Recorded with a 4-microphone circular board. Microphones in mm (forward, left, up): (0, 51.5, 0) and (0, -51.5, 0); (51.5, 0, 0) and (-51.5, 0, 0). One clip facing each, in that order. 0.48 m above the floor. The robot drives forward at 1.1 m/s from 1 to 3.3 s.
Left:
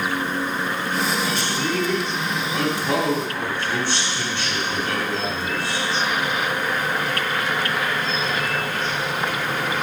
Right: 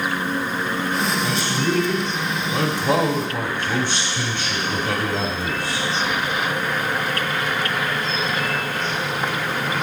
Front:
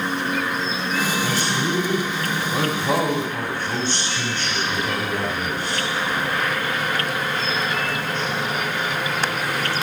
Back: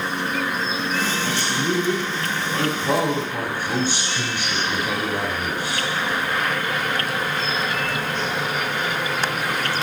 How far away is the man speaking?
About 2.5 m.